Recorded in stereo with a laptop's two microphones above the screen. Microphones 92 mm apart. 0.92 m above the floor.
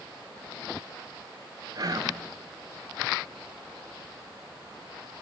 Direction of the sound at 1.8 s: 45° right (ahead or behind).